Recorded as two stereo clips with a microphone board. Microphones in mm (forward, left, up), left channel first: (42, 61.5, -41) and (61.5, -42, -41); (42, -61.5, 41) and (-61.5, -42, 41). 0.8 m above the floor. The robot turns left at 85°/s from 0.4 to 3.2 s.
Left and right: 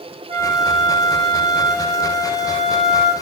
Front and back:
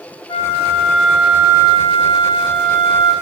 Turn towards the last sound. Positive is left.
turn(degrees=75)